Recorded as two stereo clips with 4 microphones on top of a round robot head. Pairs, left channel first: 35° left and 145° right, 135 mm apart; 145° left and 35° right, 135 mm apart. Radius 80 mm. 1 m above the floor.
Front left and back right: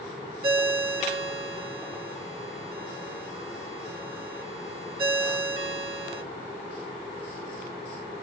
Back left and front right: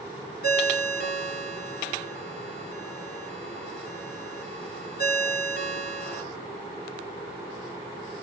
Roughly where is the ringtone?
Behind.